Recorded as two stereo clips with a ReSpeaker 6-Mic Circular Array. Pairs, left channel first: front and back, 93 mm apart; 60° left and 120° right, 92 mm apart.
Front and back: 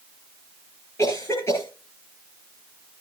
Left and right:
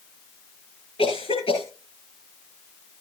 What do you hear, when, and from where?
1.0 s a cough: 55° left, 6 m